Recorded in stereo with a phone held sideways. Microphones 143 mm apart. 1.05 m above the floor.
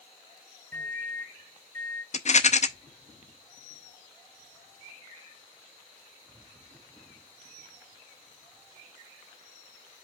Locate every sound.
0.7 s a microwave: 20° left (ahead or behind), 0.6 m
2.1 s a rattle: 50° left (ahead or behind), 0.6 m